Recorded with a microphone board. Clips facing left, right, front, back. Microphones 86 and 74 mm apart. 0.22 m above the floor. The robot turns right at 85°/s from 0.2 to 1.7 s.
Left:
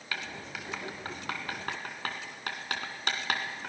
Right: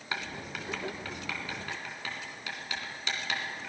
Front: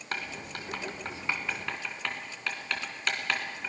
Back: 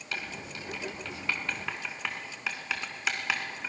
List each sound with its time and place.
0.1 s writing: 30° right, 2.5 m; by 3.7 s 100° left, 2.5 m